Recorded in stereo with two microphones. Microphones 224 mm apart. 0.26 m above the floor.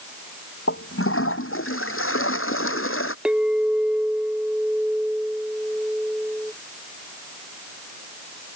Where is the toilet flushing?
70° left (ahead or behind).